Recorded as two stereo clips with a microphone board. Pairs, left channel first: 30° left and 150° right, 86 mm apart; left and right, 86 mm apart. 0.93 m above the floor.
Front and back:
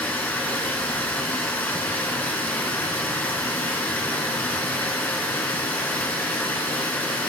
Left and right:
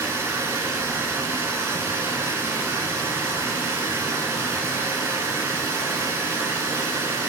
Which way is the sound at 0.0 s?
35° right.